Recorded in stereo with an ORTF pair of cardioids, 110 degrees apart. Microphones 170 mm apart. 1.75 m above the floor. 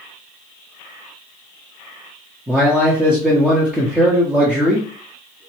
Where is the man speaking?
5° right, 0.8 m.